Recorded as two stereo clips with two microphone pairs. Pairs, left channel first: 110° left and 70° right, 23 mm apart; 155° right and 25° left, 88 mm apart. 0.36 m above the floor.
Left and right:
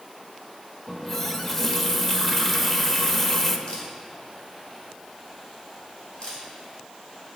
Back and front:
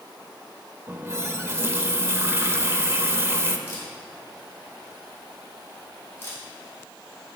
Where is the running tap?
40° left, 0.6 m.